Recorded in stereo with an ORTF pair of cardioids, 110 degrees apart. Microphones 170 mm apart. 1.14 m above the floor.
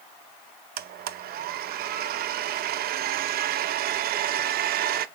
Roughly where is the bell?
No bell in this recording.